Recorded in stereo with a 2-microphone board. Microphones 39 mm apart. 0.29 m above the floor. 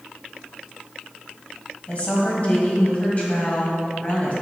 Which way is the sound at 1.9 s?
40° left (ahead or behind).